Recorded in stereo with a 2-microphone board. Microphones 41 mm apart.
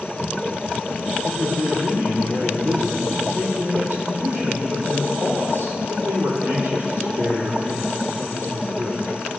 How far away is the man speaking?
About 4 m.